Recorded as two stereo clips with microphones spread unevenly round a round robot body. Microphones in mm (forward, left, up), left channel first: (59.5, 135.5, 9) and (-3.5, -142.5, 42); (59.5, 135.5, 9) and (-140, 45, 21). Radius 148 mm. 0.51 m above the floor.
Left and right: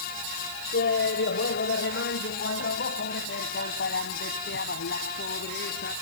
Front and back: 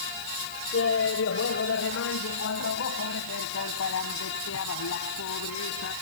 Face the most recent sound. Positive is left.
turn(degrees=25)